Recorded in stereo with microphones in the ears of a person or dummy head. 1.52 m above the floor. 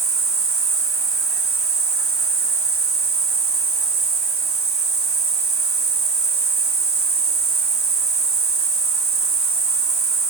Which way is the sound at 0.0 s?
15° left (ahead or behind).